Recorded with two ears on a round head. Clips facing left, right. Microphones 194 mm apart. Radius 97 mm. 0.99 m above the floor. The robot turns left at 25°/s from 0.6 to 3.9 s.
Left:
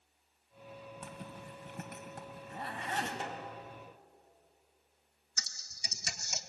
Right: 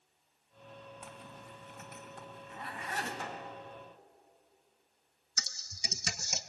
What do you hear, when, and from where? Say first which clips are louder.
1.0 s a zipper: left 3 dB; 70° left (ahead or behind), 2.5 m; by 3.1 s 20° left (ahead or behind), 2.5 m
3.2 s a snare drum: left 1 dB; 20° left (ahead or behind), 2 m; by 3.6 s 10° left (ahead or behind), 2 m
5.4 s typing on a keyboard: right 4 dB; 60° right (ahead or behind), 0.9 m